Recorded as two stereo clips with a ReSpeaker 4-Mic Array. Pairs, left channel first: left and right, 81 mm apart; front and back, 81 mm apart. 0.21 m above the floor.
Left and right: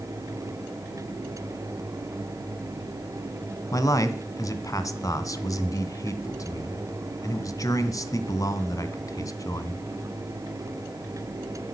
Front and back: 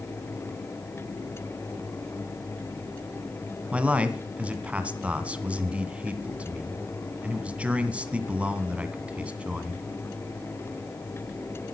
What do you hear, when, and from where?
3.7 s a man speaking: 110° left, 2 m